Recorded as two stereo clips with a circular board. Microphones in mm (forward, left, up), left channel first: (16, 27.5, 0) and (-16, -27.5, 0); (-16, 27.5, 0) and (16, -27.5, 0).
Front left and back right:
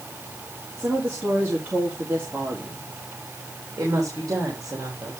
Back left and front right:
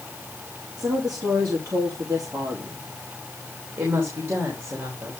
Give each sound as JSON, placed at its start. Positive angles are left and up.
{"t": 0.8, "sound": "a woman speaking", "azimuth_deg": -60, "distance_m": 2.5}
{"t": 3.8, "sound": "a woman speaking", "azimuth_deg": -95, "distance_m": 3.0}